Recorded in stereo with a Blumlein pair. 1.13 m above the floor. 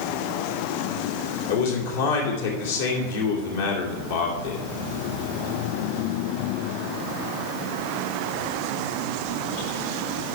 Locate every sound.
1.5 s a man speaking: 60° left, 2.5 m